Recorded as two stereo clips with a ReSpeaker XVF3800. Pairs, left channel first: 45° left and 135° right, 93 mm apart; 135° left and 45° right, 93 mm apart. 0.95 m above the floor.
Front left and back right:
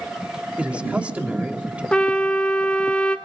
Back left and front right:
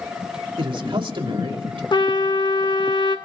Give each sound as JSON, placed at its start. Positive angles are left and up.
{"t": 0.6, "sound": "a man speaking", "azimuth_deg": -60, "distance_m": 2.5}
{"t": 1.9, "sound": "a trumpet", "azimuth_deg": 120, "distance_m": 1.5}